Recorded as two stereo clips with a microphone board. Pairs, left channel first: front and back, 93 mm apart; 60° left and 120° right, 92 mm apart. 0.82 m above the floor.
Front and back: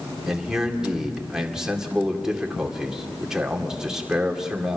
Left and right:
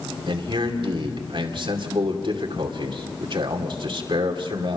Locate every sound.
0.3 s a man speaking: 95° right, 2.5 m